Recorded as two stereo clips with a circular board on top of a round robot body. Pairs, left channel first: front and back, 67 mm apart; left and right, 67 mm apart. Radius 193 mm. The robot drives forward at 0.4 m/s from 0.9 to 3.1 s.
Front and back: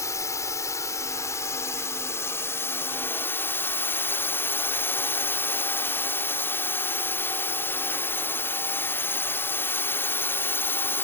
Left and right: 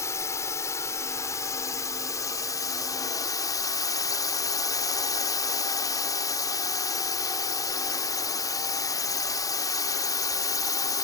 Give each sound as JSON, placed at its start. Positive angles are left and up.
{"t": 0.0, "sound": "a drone", "azimuth_deg": 45}